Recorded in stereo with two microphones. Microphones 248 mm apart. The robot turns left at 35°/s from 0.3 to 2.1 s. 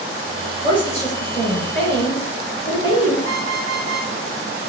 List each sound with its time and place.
0.4 s a woman speaking: 170° left, 3 m; by 3.1 s 110° left, 3 m
3.2 s an alarm clock: 55° left (ahead or behind), 3.5 m